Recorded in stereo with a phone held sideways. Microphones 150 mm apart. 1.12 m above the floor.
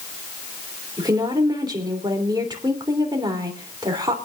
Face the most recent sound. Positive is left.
turn(degrees=-30)  # may be behind; listen again after turning